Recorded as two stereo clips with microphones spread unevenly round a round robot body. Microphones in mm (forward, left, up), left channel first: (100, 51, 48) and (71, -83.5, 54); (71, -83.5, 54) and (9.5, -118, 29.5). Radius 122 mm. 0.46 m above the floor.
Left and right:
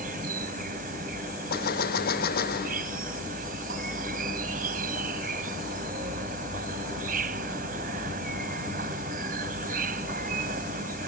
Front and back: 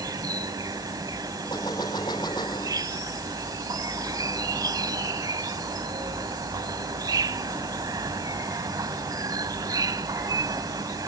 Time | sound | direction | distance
0.0 | an insect | 130° right | ?
1.5 | a gunshot | 95° left | ?